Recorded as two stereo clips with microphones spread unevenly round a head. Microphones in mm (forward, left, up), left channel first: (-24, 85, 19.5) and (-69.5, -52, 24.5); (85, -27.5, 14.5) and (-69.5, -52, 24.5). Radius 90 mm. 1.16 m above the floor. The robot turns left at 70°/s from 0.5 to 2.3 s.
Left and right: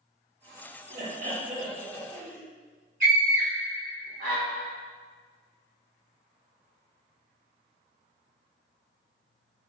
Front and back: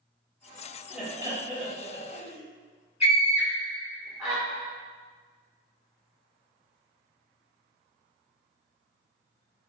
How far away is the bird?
No bird in this recording.